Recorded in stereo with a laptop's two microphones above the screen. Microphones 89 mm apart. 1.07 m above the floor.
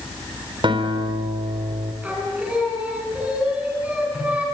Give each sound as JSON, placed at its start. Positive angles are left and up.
{"t": 0.6, "sound": "a guitar", "side_deg": -70, "distance_m": 3.5}
{"t": 2.0, "sound": "singing", "side_deg": -15, "distance_m": 6.0}